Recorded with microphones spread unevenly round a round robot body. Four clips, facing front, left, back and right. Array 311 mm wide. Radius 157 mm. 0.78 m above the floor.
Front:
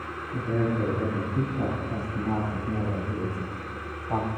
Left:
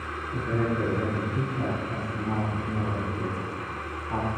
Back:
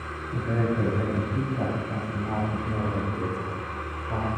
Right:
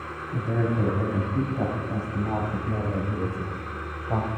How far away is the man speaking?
About 6 m.